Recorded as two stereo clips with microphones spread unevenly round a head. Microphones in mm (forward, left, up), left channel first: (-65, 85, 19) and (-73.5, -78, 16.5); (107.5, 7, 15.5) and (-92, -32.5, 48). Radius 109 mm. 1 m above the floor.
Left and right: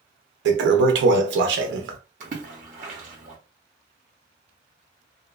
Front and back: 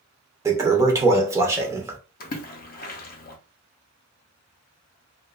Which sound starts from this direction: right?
A toilet flushing, at 0.5 s.